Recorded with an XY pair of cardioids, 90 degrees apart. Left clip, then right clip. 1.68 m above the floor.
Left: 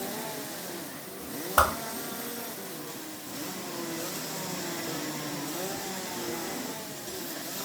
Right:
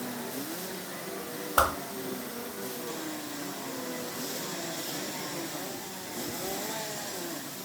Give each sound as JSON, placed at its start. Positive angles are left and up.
{"t": 1.6, "sound": "a whoosh", "azimuth_deg": 5, "distance_m": 0.7}